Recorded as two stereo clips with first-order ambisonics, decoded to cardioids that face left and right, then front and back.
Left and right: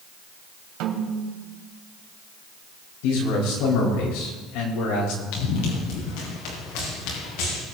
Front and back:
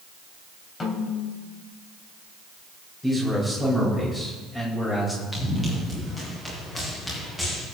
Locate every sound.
0.8 s a snare drum: 70° right, 3 m
3.0 s a man speaking: 80° left, 4.5 m
5.3 s running footsteps: 80° left, 5.5 m